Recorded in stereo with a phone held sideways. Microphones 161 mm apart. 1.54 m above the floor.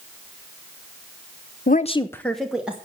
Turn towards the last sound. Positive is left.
turn(degrees=-10)  # may be behind; listen again after turning